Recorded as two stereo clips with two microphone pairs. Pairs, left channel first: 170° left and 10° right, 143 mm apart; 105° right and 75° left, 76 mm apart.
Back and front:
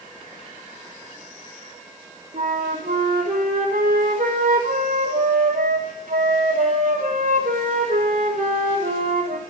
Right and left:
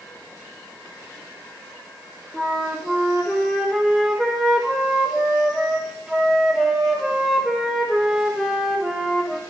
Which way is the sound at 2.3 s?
15° right.